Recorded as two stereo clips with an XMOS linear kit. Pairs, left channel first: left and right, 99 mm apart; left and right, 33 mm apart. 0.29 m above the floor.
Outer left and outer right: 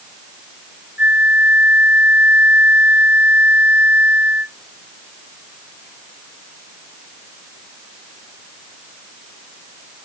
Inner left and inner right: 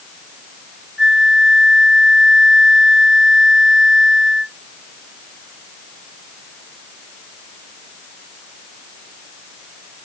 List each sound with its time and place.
1.0 s a flute: 15° right (ahead or behind)